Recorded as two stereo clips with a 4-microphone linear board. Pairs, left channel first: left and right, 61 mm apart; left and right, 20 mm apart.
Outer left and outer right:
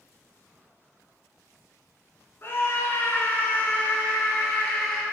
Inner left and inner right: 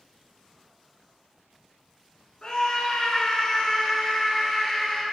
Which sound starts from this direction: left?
A scream, at 2.4 s.